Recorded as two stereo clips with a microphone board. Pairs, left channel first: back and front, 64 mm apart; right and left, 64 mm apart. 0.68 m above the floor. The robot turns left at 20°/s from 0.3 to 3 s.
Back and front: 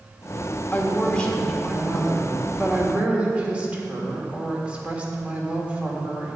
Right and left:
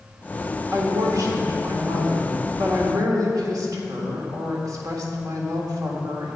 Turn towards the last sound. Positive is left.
turn(degrees=70)